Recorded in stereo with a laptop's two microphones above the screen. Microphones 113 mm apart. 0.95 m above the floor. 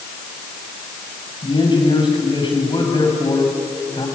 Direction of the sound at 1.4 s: 45° left (ahead or behind).